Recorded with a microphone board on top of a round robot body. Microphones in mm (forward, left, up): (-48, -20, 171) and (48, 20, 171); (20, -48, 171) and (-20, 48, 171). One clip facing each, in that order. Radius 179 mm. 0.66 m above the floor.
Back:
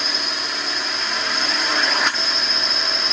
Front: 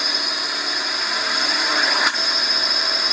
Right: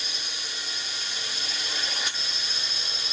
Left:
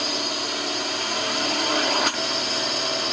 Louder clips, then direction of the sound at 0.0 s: Even, left 13 dB; 110° left.